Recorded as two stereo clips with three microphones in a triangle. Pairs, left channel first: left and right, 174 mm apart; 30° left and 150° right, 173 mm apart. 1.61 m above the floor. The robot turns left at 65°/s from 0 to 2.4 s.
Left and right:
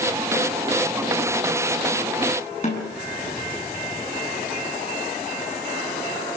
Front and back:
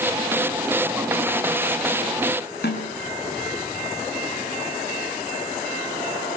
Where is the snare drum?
45° left, 7.5 m.